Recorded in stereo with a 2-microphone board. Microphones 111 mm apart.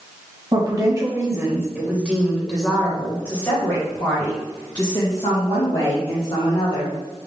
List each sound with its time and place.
0.5 s a woman speaking: 40° right (ahead or behind), 1.5 m; by 6.9 s 55° left (ahead or behind), 2.5 m